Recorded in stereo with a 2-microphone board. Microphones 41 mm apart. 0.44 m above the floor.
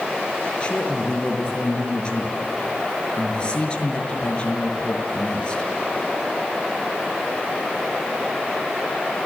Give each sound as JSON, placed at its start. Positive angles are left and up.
{"t": 0.6, "sound": "a man speaking", "side_deg": 25, "distance_m": 6.0}